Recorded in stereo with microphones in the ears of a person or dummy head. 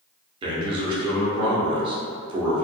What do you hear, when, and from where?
0.4 s a man speaking: 30° right (ahead or behind), 0.6 m